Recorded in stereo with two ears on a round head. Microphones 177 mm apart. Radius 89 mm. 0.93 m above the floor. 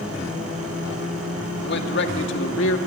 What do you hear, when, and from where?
1.6 s a man speaking: 55° left (ahead or behind), 2 m; by 2.8 s 70° left (ahead or behind), 2 m